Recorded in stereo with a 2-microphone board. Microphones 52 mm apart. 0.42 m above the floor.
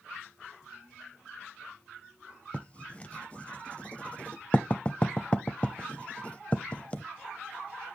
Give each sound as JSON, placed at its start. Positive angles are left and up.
{"t": 2.5, "sound": "writing", "side_deg": 25, "distance_m": 0.6}